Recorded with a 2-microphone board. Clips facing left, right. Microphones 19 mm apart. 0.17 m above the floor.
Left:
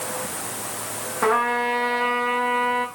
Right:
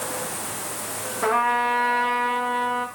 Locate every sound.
1.2 s a trumpet: 45° left (ahead or behind), 8.5 m